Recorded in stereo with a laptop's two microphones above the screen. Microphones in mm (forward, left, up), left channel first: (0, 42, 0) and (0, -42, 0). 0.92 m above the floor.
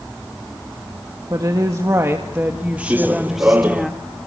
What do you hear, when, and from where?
1.3 s a woman speaking: 45° right (ahead or behind), 1.7 m; by 3.9 s 5° left (ahead or behind), 1.7 m
2.9 s running footsteps: 20° right (ahead or behind), 0.9 m